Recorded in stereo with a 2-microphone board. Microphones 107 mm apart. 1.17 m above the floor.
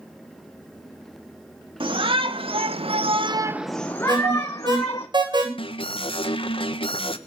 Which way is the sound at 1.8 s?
55° right (ahead or behind).